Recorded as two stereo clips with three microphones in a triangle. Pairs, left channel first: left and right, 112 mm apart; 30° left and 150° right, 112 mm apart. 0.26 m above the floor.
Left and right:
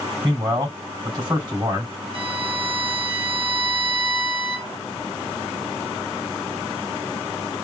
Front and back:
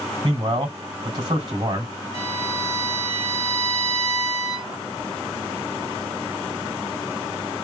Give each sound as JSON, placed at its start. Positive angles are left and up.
{"t": 0.2, "sound": "a man speaking", "azimuth_deg": -120, "distance_m": 2.0}
{"t": 2.1, "sound": "a violin", "azimuth_deg": -90, "distance_m": 1.2}